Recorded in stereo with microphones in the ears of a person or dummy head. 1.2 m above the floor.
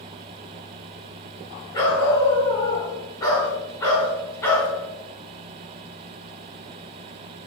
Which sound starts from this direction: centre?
A dog barking, at 1.7 s.